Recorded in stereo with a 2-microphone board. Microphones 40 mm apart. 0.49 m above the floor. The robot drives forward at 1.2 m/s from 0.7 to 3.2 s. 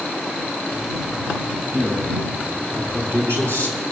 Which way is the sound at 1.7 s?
65° right (ahead or behind).